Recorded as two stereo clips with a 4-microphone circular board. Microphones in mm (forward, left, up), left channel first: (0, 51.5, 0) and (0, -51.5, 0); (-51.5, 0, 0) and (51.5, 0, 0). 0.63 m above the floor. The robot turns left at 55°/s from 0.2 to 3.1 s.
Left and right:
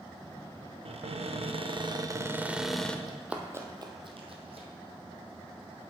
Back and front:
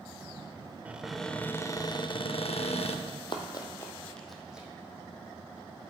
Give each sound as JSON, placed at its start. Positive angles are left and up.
{"t": 0.8, "sound": "a cupboard door", "azimuth_deg": -75, "distance_m": 0.5}
{"t": 3.1, "sound": "running footsteps", "azimuth_deg": -175, "distance_m": 1.2}